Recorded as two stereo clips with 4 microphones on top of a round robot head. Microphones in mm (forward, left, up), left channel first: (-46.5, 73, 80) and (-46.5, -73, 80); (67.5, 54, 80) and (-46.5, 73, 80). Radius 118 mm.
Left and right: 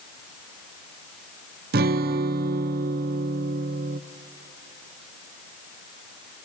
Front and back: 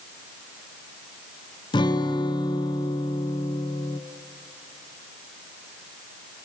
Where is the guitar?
70° right, 0.6 m.